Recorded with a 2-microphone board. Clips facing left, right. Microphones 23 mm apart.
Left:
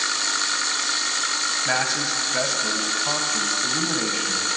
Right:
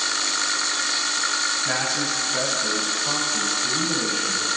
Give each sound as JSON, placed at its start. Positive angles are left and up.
{"t": 1.6, "sound": "a man speaking", "side_deg": 30, "distance_m": 1.3}